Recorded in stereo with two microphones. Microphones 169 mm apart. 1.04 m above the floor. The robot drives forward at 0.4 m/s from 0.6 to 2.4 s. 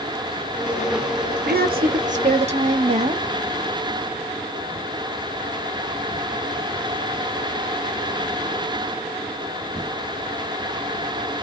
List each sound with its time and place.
1.5 s a woman speaking: 65° right (ahead or behind), 0.5 m; by 3.2 s 40° right (ahead or behind), 0.7 m